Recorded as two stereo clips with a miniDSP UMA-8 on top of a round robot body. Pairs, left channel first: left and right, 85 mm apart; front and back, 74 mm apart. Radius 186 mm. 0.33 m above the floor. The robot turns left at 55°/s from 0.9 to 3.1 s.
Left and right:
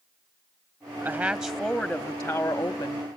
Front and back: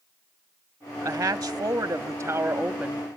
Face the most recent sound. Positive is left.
turn(degrees=110)